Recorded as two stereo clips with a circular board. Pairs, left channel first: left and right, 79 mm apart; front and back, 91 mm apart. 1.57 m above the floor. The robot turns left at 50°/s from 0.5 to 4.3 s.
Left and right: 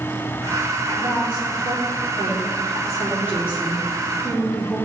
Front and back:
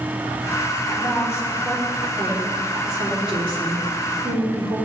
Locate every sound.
0.9 s a woman speaking: 35° right, 3 m; by 4.9 s 155° left, 3 m